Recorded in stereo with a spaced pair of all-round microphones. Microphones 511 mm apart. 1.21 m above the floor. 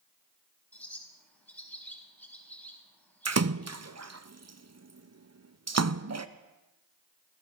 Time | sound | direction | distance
0.7 | a bird | 5° left (ahead or behind) | 4.5 m
3.2 | a splash | 35° right (ahead or behind) | 0.6 m